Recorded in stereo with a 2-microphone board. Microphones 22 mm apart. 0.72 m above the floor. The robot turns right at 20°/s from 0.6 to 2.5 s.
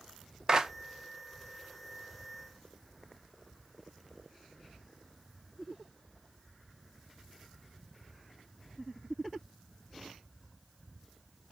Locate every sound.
0.5 s a clap: 25° right (ahead or behind), 0.6 m